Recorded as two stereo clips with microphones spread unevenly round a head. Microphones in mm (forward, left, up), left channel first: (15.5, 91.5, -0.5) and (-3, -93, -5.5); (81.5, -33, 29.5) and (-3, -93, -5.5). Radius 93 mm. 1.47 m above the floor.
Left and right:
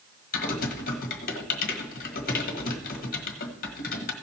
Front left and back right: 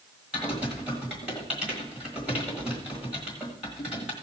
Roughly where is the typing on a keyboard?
Behind left.